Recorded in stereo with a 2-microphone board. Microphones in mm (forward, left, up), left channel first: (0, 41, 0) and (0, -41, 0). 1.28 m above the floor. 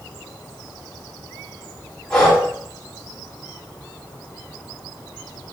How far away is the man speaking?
I don't hear a man speaking.